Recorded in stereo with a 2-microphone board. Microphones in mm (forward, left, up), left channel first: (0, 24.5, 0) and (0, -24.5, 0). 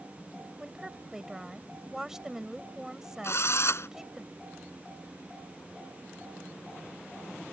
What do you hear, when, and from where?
0.6 s a woman speaking: 10° right (ahead or behind)
3.2 s a drill: 60° left (ahead or behind)